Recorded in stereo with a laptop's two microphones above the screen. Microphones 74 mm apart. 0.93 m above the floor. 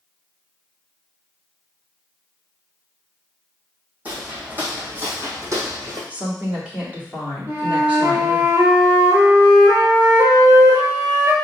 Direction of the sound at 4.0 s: 20° right (ahead or behind).